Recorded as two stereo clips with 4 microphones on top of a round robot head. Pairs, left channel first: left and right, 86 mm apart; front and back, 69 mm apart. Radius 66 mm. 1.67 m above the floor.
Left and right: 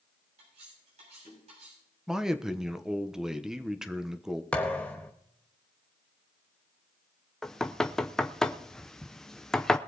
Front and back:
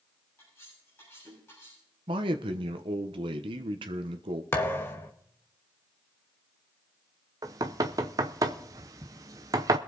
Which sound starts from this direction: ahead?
A thud, at 4.5 s.